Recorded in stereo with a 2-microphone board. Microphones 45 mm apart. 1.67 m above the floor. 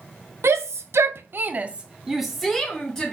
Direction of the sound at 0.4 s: 65° right (ahead or behind).